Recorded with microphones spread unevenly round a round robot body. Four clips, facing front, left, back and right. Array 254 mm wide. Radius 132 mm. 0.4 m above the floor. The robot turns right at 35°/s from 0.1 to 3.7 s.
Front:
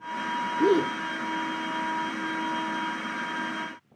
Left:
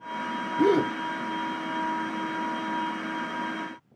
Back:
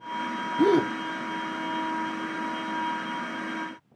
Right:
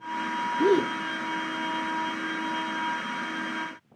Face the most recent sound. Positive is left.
turn(degrees=-105)